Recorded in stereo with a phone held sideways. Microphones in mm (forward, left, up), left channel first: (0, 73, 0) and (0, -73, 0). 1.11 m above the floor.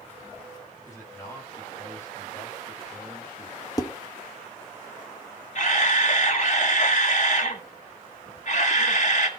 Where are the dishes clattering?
25° left (ahead or behind), 1.3 m.